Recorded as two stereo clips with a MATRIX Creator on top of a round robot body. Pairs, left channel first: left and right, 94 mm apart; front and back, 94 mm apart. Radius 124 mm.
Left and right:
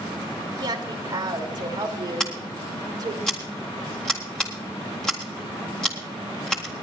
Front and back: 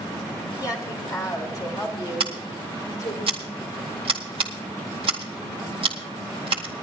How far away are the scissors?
About 0.6 m.